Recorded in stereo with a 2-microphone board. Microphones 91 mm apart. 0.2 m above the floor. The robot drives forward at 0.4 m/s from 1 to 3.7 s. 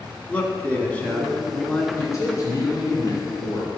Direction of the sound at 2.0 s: 35° left (ahead or behind).